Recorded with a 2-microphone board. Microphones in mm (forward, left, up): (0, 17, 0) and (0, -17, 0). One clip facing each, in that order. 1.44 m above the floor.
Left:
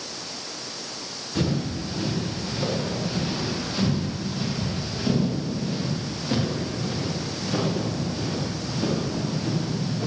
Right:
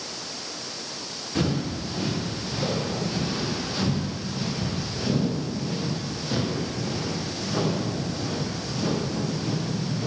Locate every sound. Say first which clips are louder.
1.4 s footsteps: even; 5° right (ahead or behind), 7 m; by 10.1 s 25° left (ahead or behind), 16.5 m